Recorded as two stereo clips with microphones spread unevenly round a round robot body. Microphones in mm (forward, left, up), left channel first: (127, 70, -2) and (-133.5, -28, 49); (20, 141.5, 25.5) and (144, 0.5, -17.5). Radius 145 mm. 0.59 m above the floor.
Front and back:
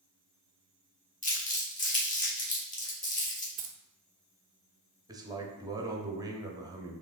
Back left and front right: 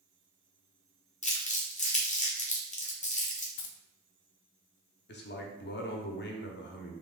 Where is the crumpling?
75° left, 1.4 m.